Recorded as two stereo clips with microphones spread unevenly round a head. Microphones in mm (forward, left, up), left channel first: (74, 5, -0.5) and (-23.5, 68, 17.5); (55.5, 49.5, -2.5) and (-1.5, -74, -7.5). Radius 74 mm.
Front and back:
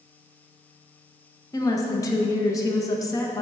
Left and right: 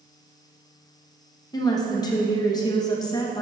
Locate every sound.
1.5 s a woman speaking: 10° left, 0.9 m